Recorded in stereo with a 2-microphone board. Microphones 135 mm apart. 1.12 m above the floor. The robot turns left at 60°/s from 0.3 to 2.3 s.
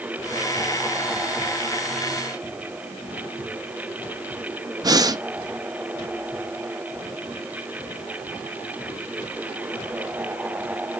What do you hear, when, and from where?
4.8 s breathing: 30° right (ahead or behind), 0.6 m